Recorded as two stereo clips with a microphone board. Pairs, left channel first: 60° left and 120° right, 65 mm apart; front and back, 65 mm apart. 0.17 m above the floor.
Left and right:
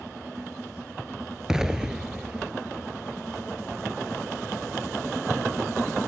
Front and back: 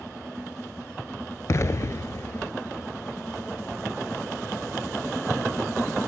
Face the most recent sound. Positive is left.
turn(degrees=-40)